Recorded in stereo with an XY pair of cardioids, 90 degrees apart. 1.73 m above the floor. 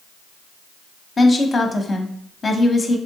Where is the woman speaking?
40° left, 0.8 m.